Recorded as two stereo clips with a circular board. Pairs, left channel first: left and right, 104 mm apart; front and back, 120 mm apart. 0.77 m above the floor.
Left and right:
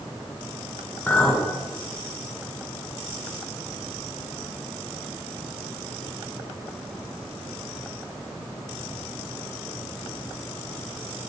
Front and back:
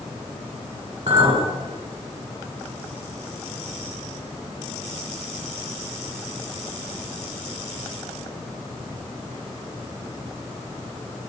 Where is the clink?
170° left, 1.5 m.